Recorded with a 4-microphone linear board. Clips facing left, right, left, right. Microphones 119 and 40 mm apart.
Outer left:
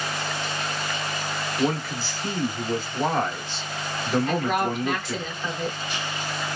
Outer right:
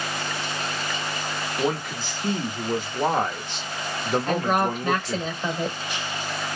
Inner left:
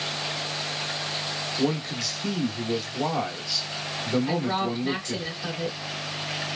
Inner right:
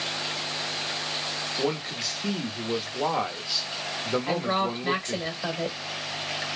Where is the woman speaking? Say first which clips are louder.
Outer right 1 dB, even; 35° right (ahead or behind), 1.8 m.